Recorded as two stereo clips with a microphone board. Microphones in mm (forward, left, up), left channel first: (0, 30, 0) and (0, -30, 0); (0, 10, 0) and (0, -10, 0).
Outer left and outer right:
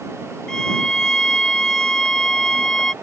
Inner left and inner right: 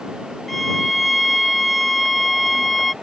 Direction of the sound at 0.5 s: 10° left (ahead or behind).